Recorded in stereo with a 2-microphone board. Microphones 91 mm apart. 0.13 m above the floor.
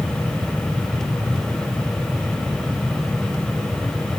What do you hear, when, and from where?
Only background noise.